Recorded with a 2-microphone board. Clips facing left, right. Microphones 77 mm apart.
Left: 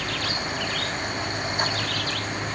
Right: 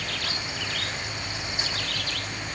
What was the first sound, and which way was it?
Only background noise.